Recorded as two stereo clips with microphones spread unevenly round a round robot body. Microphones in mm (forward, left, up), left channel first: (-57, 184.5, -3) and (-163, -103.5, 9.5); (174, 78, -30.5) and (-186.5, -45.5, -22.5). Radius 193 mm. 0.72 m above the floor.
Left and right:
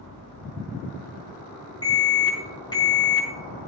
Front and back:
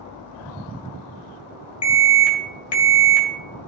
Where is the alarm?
10° right, 2 m.